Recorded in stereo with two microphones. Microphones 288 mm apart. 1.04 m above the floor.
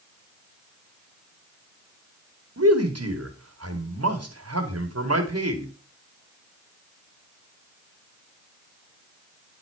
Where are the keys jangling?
No keys jangling in this recording.